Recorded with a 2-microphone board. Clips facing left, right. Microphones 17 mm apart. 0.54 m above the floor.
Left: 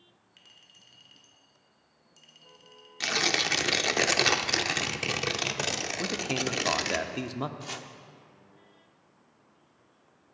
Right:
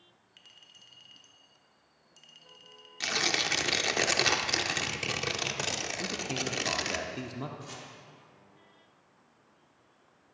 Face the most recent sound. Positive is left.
turn(degrees=35)  # may be behind; listen again after turning